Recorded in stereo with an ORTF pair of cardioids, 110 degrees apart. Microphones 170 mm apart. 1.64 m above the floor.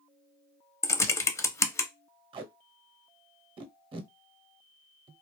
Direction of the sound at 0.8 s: 15° left.